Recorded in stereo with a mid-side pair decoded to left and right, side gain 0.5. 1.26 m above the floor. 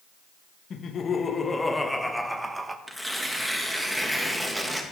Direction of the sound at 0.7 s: 50° left.